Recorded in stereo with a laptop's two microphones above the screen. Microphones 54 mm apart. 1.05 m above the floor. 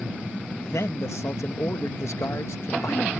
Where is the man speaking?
60° left (ahead or behind).